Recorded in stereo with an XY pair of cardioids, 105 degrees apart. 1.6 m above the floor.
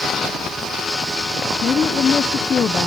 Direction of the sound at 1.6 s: 50° left.